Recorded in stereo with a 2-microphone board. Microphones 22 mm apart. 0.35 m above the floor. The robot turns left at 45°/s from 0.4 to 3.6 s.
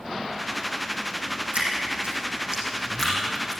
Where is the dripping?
70° right (ahead or behind), 6.5 m; by 3.6 s 20° left (ahead or behind), 6.5 m.